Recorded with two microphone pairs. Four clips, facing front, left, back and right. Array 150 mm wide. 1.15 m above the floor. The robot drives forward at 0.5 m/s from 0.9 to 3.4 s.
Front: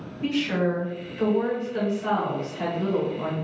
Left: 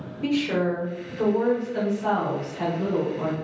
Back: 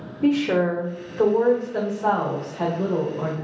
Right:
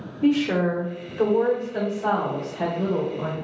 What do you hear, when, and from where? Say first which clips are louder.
0.2 s a woman speaking: right 3 dB, back 5 dB; 160° right, 0.9 m; by 3.3 s 170° right, 2 m